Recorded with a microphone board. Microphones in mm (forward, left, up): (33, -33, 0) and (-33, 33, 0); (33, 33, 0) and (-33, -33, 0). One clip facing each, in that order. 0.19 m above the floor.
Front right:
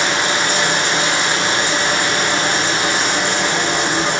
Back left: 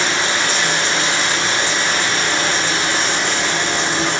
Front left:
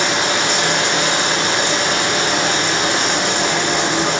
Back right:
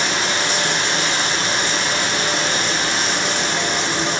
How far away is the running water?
About 1.0 m.